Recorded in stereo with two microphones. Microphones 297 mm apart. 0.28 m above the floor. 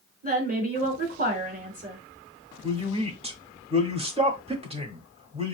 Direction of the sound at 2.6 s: 20° right (ahead or behind).